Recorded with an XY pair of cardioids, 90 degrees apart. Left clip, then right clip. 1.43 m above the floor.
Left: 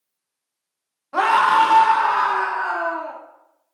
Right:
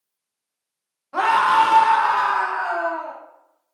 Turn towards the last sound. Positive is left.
turn(degrees=-75)